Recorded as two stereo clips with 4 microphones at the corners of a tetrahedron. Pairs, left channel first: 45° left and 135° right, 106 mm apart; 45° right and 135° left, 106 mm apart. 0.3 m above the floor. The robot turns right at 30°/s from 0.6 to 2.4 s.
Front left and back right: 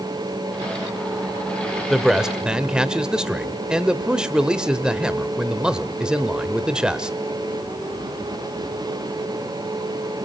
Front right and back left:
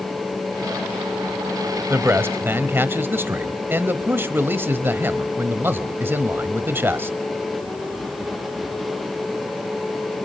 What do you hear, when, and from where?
1.9 s a man speaking: 140° left, 1.1 m; by 7.2 s 155° left, 1.1 m